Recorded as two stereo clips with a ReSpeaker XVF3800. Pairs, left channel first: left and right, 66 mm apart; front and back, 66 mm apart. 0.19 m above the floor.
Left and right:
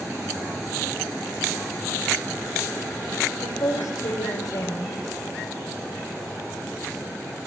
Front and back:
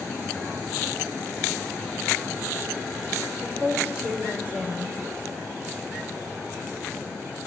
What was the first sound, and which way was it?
A woman speaking, 120° left.